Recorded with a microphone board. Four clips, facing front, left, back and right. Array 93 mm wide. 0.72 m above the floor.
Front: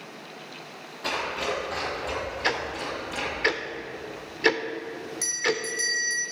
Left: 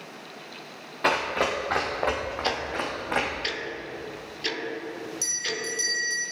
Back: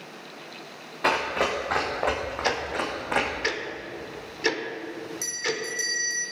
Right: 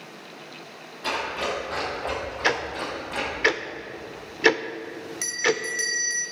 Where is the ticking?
70° right, 0.7 m.